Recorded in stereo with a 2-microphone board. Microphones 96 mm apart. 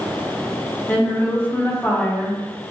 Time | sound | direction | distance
0.9 | a woman speaking | 20° left (ahead or behind) | 0.8 m